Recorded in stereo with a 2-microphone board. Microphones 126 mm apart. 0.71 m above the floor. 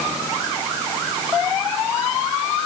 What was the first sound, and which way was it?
Only background noise.